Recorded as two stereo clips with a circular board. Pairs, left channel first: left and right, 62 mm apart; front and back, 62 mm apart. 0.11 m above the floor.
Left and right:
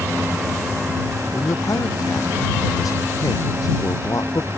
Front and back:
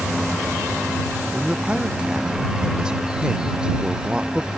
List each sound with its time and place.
1.3 s a man speaking: 105° left